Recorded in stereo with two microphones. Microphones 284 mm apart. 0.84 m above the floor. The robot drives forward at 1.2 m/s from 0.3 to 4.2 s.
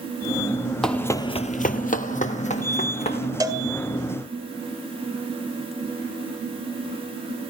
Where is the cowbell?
15° right (ahead or behind), 2.0 m.